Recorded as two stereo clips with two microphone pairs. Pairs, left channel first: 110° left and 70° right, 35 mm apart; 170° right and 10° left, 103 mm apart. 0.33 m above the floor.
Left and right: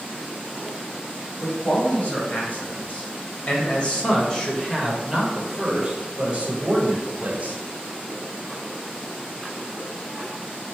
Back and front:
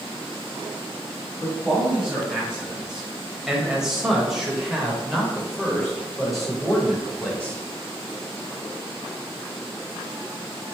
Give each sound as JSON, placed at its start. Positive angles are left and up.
{"t": 1.4, "sound": "a man speaking", "azimuth_deg": 95, "distance_m": 2.0}